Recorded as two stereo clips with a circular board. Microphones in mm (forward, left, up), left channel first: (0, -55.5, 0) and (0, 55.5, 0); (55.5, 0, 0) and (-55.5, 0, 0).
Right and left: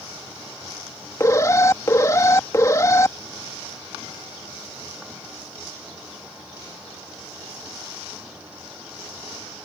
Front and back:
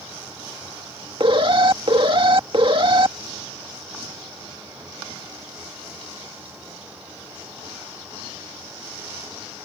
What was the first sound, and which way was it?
An alarm, 150° right.